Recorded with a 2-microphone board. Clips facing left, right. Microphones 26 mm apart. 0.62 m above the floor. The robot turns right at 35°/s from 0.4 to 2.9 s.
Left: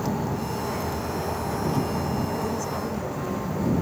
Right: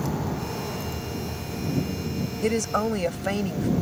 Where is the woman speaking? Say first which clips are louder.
Right 4 dB; 75° right (ahead or behind); by 3.7 s 70° right (ahead or behind).